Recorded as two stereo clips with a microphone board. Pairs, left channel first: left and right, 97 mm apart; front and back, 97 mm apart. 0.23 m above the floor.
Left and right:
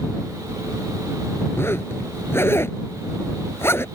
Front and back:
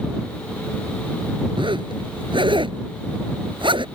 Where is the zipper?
155° left.